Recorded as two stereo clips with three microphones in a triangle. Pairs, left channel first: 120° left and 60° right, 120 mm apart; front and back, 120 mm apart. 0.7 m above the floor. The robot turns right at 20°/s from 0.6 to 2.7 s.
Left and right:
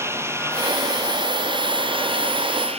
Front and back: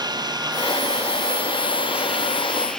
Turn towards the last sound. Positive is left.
turn(degrees=-85)